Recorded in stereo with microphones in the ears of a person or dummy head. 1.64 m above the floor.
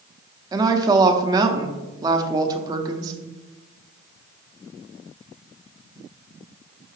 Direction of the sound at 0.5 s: 20° right (ahead or behind).